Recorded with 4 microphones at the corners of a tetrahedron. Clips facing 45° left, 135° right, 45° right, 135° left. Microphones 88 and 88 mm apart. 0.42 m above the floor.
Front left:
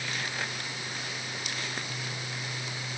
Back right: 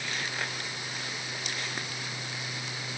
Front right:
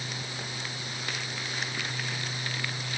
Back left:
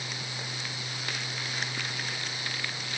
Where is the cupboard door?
I don't hear a cupboard door.